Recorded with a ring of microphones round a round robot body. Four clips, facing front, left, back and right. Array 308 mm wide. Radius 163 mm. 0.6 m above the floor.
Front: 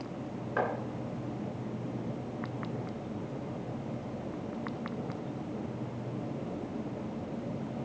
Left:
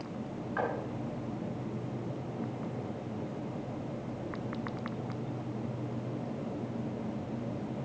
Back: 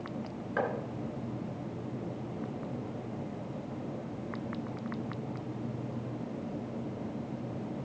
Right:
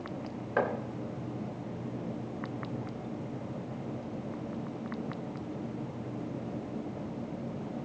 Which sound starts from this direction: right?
Chopping, at 0.6 s.